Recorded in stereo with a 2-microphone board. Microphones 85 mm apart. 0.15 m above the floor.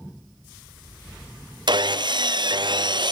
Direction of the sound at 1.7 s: 60° right (ahead or behind).